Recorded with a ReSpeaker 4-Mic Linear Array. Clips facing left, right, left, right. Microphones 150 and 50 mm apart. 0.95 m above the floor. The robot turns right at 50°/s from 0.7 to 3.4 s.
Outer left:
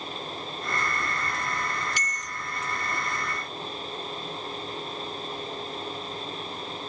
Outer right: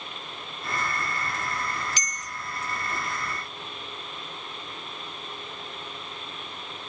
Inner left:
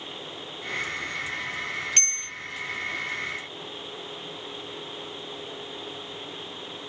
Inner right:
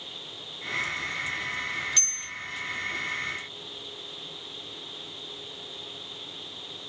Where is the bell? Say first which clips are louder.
Outer left 2 dB, inner left 5 dB; 55° left (ahead or behind), 0.5 m; by 2.3 s 65° left (ahead or behind), 0.5 m.